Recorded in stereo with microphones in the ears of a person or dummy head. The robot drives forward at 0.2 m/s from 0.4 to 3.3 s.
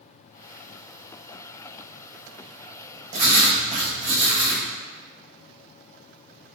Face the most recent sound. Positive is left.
turn(degrees=-30)  # may be behind; listen again after turning